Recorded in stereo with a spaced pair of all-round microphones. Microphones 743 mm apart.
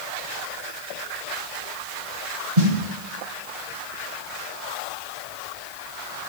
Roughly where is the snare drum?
Right.